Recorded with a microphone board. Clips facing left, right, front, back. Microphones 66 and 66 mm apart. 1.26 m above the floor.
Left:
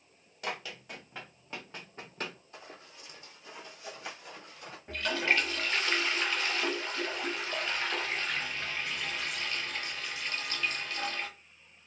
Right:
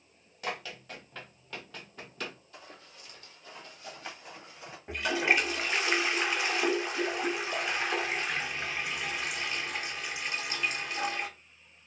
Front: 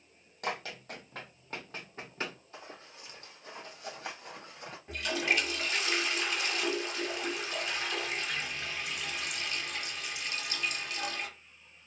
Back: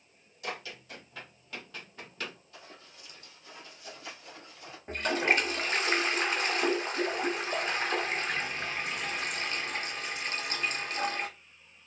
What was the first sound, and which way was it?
Running footsteps, 5° left.